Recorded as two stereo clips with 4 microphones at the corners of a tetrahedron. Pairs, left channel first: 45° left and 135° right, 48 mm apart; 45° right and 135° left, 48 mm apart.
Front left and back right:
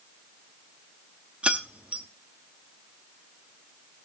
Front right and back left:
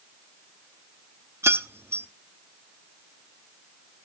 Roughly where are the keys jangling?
Behind.